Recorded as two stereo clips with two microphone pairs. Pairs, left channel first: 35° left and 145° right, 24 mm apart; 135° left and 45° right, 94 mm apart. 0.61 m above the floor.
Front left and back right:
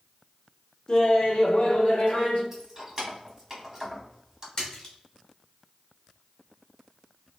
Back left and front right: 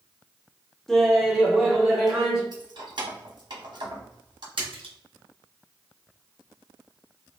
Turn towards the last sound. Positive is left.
turn(degrees=-30)